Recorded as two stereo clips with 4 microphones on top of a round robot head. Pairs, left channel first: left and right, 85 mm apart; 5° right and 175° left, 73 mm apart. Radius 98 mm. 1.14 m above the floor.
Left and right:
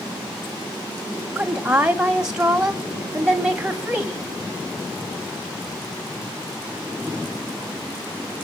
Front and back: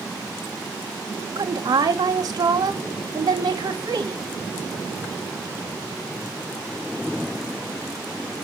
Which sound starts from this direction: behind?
A woman speaking, at 1.4 s.